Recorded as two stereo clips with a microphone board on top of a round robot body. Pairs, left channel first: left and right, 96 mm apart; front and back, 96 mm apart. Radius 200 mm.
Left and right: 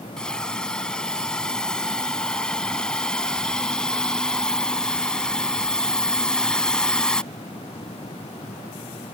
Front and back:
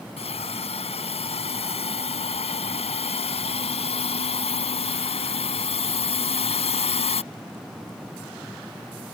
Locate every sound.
0.2 s a hiss: 10° left